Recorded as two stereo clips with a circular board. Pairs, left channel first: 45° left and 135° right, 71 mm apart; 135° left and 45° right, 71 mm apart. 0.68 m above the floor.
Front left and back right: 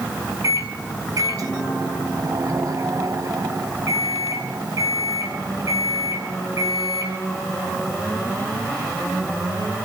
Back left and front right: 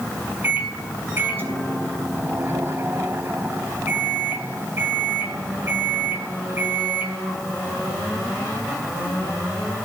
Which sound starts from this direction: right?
A microwave, at 0.4 s.